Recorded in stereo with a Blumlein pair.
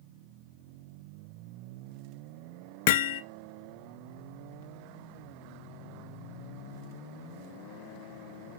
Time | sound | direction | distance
2.9 | hammering | 50° left | 0.9 m